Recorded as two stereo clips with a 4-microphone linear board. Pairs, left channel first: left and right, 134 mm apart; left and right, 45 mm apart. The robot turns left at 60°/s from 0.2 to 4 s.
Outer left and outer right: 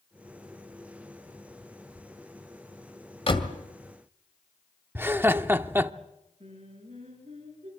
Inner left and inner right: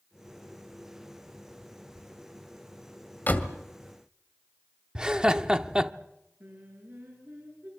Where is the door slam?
45° left (ahead or behind), 1.9 m; by 3.6 s 30° left (ahead or behind), 1.9 m.